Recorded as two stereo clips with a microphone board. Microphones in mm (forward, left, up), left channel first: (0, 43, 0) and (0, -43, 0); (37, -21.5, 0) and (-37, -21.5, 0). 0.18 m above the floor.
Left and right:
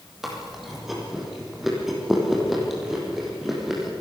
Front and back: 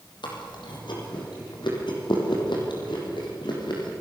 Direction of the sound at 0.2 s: Straight ahead.